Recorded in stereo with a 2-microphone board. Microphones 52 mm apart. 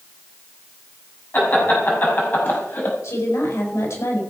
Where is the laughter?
40° left (ahead or behind), 5.5 m; by 2.9 s 45° left (ahead or behind), 4.5 m.